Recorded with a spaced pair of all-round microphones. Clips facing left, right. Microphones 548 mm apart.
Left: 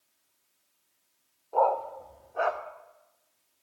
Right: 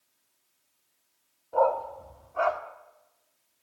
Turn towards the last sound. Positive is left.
turn(degrees=-25)  # may be behind; listen again after turning